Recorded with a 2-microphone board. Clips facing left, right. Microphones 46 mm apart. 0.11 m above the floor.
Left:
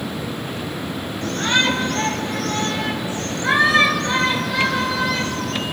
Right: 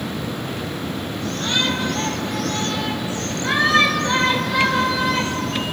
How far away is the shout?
About 2.5 m.